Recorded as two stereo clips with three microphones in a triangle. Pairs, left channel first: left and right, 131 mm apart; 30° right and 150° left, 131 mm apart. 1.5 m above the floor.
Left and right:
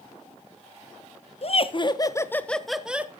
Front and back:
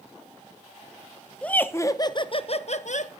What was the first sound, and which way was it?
Laughter, 50° left.